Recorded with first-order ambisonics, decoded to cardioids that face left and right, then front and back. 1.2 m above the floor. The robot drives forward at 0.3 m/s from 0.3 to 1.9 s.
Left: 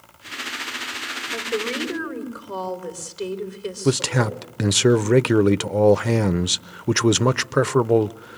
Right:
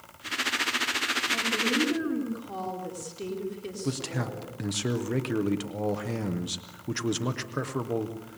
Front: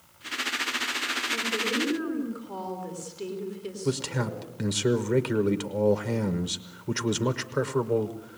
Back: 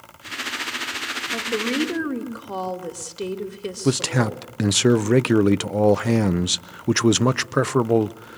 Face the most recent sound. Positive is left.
turn(degrees=130)